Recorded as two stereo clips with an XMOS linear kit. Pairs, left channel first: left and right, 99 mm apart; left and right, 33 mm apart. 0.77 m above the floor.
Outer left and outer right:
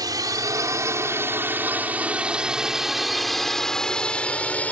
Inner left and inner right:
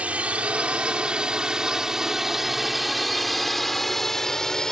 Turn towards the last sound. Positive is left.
turn(degrees=15)  # may be behind; listen again after turning